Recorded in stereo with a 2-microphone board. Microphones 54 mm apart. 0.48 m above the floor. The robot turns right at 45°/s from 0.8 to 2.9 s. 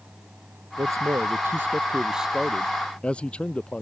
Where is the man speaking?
75° right; by 3.8 s 20° left.